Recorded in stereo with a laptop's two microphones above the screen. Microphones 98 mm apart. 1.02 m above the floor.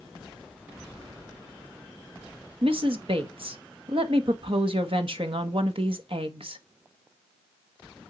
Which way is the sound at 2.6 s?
65° right (ahead or behind).